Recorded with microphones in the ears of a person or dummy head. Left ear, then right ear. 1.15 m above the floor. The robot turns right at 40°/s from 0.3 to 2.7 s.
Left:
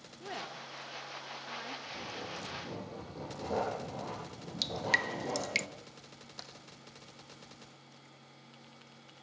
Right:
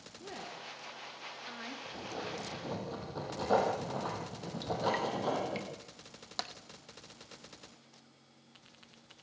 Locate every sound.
0.2 s a woman speaking: 50° left (ahead or behind), 3 m; by 1.8 s 5° right (ahead or behind), 3 m
1.9 s writing: 175° right, 8.5 m; by 5.6 s 140° right, 8.5 m
4.6 s dripping: 60° left (ahead or behind), 0.7 m
6.4 s tapping: 35° right (ahead or behind), 1.2 m